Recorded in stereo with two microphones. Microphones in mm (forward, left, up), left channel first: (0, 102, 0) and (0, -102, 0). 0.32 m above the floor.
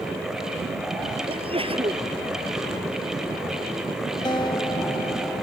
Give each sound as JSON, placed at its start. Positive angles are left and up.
{"t": 1.3, "sound": "a sneeze", "side_deg": -25}
{"t": 4.2, "sound": "a guitar", "side_deg": 20}